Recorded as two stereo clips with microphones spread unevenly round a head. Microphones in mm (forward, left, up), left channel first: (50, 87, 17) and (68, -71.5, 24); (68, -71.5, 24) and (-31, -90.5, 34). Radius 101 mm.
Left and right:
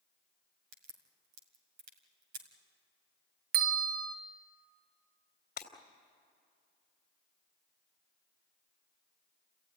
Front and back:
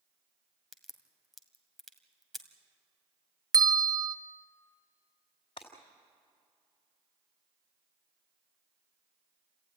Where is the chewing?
I don't hear chewing.